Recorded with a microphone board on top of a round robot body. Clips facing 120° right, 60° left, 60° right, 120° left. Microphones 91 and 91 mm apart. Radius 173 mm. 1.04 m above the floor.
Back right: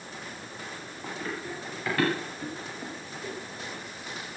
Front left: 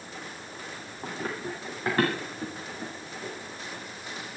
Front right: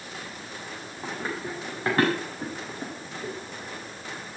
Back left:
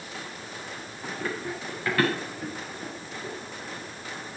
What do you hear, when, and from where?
1.0 s running footsteps: 10° left, 7.5 m; by 3.3 s 10° right, 6 m